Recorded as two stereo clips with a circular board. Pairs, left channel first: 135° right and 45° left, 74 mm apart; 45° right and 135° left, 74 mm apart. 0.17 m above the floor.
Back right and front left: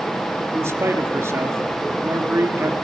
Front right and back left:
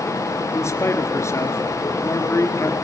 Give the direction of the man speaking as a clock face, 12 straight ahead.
12 o'clock.